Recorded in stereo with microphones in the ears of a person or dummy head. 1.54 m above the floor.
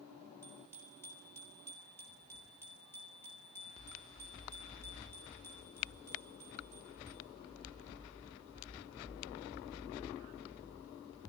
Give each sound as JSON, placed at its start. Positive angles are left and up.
{"t": 0.4, "sound": "a bicycle bell", "side_deg": 10, "distance_m": 6.0}